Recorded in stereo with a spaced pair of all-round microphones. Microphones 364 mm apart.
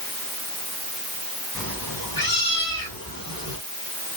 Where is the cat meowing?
70° left (ahead or behind), 5 m; by 3.6 s 75° left (ahead or behind), 5.5 m.